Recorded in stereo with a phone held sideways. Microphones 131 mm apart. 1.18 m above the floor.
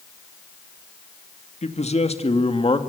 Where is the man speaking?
60° left (ahead or behind), 2 m; by 2.8 s 45° left (ahead or behind), 2.0 m.